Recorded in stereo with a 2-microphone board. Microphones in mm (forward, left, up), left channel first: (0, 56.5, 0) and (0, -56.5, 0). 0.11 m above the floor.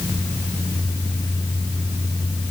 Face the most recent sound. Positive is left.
No sound to turn to.